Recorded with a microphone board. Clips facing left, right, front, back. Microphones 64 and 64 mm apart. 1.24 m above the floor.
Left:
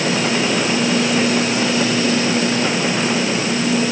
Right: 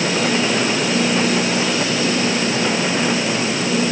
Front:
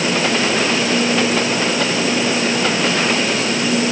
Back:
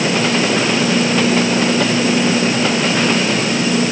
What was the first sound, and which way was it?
Only background noise.